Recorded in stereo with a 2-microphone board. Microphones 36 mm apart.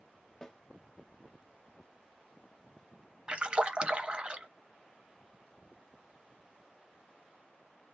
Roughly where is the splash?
Right.